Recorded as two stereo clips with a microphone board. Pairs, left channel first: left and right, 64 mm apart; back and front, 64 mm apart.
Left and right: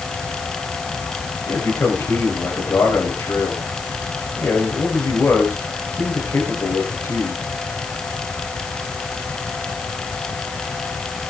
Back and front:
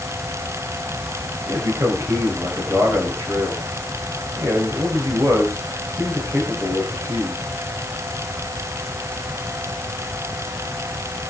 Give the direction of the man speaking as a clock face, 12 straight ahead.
11 o'clock.